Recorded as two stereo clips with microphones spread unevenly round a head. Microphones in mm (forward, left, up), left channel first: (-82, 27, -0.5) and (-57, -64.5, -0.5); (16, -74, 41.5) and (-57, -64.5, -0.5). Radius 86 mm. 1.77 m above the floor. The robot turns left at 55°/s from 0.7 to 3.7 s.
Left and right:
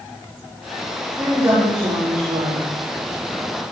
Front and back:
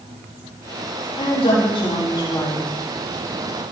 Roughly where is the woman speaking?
Ahead.